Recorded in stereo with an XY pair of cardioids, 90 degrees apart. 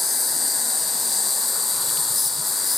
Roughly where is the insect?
Ahead.